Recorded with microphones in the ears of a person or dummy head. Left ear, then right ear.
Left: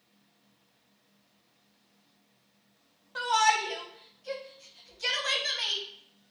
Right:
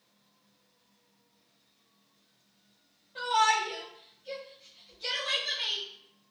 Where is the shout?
50° left (ahead or behind), 0.7 m.